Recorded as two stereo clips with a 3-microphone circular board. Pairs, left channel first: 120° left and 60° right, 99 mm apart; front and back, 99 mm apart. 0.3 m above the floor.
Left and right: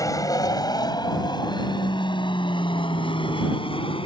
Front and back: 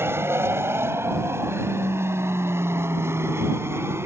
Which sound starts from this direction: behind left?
An aircraft, at 0.0 s.